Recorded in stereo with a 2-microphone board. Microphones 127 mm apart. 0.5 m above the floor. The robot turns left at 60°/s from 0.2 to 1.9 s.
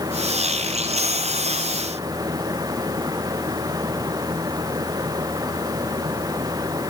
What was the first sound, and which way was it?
Only background noise.